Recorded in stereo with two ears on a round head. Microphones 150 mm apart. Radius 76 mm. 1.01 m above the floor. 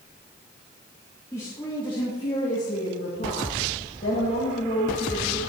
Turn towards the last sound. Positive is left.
turn(degrees=60)  # may be behind; listen again after turning